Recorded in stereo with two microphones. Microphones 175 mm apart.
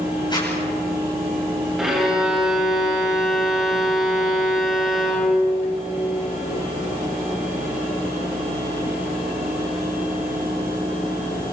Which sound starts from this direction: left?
A zipper, at 0.3 s.